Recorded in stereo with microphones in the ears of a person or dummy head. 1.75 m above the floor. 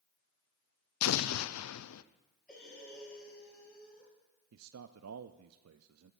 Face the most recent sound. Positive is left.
turn(degrees=-85)